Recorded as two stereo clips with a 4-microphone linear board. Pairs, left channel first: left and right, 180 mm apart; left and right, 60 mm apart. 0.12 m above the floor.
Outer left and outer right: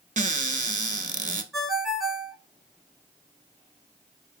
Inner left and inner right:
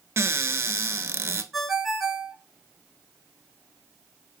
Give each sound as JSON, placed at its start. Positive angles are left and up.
{"t": 0.2, "sound": "a cupboard door", "side_deg": -45, "distance_m": 0.5}
{"t": 1.5, "sound": "a ringtone", "side_deg": 0, "distance_m": 0.7}